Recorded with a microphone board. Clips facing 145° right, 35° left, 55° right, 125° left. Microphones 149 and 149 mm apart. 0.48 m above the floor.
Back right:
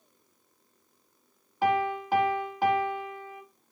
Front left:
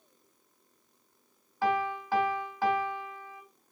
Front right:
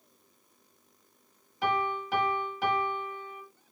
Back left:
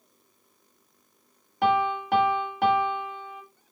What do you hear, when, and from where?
1.6 s a piano: 145° left, 0.6 m